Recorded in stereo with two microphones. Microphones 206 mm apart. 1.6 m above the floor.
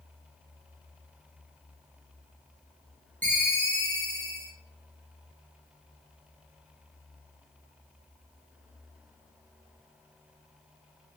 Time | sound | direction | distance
3.2 | a ringtone | 10° left (ahead or behind) | 1.5 m